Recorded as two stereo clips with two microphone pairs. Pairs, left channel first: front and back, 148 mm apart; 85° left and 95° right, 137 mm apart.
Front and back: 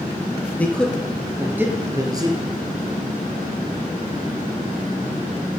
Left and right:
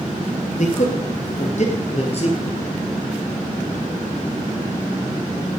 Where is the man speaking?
80° left, 2.5 m; by 2.5 s 125° left, 3 m.